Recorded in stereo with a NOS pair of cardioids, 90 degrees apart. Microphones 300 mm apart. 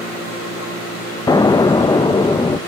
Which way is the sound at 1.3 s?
15° left.